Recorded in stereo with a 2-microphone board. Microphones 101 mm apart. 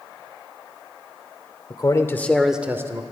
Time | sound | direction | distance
1.7 | a man speaking | 40° left (ahead or behind) | 0.9 m